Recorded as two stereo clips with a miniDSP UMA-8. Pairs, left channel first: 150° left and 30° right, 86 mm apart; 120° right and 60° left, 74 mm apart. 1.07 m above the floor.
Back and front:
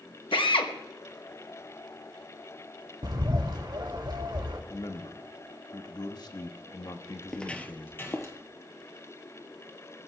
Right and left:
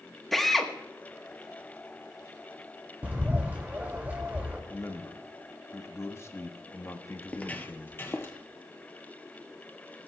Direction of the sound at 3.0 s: 5° right.